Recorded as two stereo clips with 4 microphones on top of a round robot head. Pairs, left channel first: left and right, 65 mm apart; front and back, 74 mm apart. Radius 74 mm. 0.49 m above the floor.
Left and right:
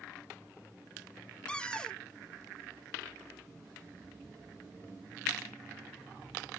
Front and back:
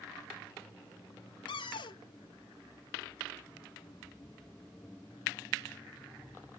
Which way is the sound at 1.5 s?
10° left.